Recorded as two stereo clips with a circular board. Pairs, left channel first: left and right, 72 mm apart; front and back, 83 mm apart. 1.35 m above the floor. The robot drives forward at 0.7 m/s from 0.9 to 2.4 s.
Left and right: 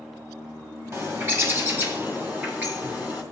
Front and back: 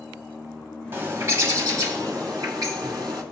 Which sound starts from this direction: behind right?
A bird, at 0.9 s.